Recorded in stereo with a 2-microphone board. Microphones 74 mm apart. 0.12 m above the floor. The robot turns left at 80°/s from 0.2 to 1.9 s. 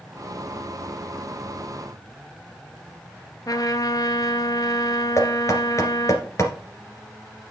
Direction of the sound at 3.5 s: 55° left (ahead or behind).